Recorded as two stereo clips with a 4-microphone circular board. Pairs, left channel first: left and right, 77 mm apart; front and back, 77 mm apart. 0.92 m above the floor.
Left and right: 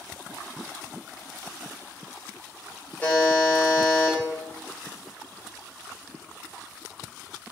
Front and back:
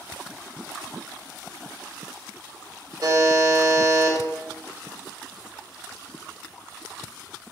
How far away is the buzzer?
About 0.8 m.